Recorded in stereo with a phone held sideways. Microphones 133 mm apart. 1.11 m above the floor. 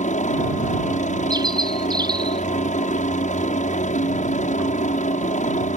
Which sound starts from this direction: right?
A bird, at 1.3 s.